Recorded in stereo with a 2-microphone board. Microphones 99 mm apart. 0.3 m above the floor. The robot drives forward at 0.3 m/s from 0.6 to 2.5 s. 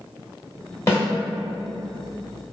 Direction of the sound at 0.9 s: 25° left (ahead or behind).